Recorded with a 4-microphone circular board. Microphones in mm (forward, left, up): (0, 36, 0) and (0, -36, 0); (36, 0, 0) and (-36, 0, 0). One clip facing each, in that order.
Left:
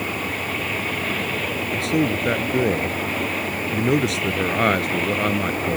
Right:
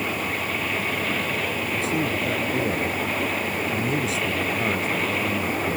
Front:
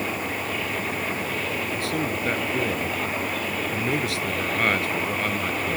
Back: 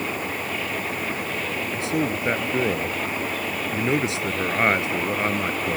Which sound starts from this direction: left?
A man speaking, at 1.7 s.